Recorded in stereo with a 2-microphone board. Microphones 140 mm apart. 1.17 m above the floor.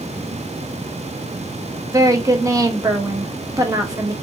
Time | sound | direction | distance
1.9 | a woman speaking | 25° right (ahead or behind) | 0.7 m